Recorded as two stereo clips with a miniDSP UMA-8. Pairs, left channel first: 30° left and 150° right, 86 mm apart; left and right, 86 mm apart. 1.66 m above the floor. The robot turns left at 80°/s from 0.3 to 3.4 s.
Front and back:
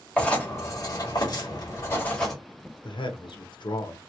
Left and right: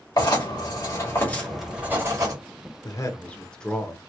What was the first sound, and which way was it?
Writing, 105° left.